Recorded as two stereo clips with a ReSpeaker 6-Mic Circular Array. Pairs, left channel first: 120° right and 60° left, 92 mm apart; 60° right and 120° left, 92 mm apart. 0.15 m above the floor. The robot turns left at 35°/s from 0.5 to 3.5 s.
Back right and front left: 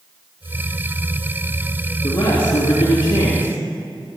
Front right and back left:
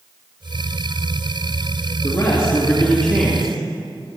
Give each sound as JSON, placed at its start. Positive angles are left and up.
{"t": 2.0, "sound": "a man speaking", "azimuth_deg": -110, "distance_m": 3.5}